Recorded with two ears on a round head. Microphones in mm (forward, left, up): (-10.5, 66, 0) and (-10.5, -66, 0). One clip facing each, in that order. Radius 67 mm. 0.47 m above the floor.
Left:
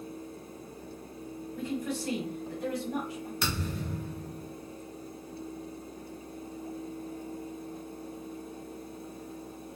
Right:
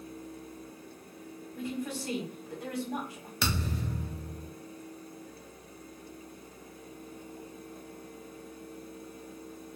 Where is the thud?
65° right (ahead or behind), 0.8 m.